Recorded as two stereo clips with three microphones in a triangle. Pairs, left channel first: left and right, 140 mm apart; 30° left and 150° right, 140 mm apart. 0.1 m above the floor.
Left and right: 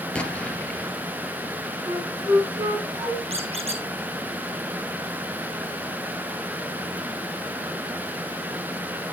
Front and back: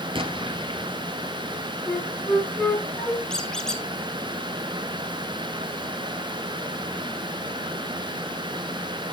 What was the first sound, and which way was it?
An explosion, 170° left.